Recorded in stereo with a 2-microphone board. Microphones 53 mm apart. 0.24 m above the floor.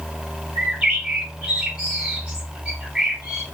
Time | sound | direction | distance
0.6 | a bird | 20° right (ahead or behind) | 1.3 m